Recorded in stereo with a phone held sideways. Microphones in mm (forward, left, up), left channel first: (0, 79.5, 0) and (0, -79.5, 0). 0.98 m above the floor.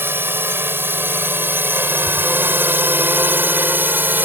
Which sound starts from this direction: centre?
A drone, at 0.0 s.